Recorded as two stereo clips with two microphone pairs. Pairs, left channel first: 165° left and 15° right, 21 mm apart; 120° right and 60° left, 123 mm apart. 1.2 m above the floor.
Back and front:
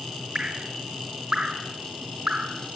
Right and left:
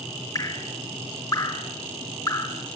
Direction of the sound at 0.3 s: 60° right.